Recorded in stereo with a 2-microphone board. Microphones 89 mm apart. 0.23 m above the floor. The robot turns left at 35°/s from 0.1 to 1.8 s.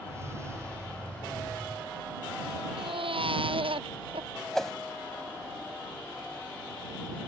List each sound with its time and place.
2.8 s a baby crying: 75° right (ahead or behind)
4.5 s a whoosh: 5° left (ahead or behind)